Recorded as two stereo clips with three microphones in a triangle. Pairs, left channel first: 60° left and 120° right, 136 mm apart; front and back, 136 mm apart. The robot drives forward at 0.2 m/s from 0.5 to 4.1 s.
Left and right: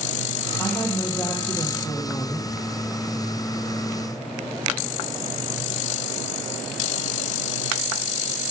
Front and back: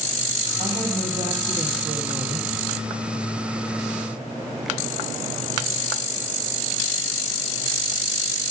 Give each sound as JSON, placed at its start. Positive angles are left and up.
{"t": 0.6, "sound": "a woman speaking", "azimuth_deg": 135, "distance_m": 3.0}